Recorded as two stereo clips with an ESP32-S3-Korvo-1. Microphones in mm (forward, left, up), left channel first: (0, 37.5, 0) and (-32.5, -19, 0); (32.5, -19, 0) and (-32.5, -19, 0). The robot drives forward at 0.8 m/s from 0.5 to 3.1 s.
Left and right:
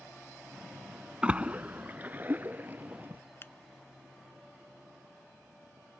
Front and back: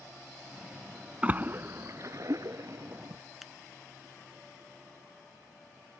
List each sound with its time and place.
1.2 s a splash: 160° right; by 3.2 s 175° right
3.4 s a finger snap: 95° left